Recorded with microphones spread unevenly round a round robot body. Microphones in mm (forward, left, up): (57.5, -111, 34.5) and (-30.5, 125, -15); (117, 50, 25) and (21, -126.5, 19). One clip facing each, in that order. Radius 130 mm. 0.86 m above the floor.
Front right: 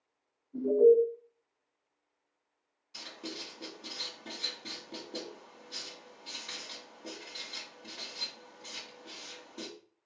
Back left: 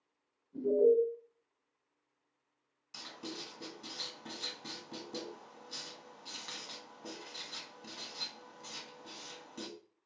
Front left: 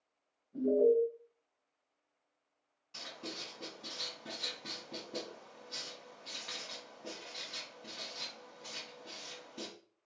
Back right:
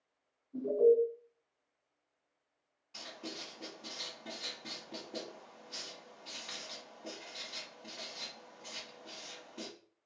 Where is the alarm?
130° left, 1.7 m.